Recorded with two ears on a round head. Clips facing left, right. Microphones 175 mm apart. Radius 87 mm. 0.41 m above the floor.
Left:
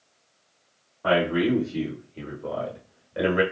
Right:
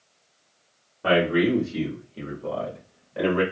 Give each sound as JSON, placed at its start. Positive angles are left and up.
{"t": 1.0, "sound": "a man speaking", "side_deg": -30, "distance_m": 1.4}